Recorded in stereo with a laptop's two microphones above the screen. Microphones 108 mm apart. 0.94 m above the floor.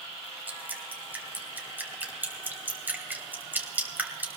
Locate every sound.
0.5 s dripping: 15° right (ahead or behind), 2.5 m